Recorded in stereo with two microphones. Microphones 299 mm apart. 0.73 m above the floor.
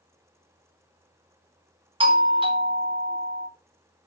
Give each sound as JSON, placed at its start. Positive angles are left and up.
{"t": 2.0, "sound": "a doorbell", "side_deg": -15, "distance_m": 1.3}